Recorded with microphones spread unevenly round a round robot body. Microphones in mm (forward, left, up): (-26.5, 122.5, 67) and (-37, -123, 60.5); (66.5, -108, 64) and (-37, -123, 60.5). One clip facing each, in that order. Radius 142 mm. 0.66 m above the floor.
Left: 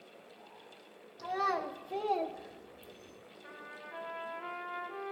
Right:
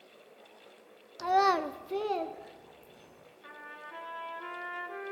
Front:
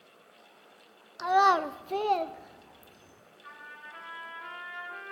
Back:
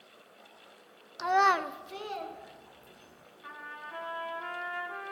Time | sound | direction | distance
1.2 | a child speaking | 85° right | 0.7 m
3.4 | a trumpet | 135° right | 2 m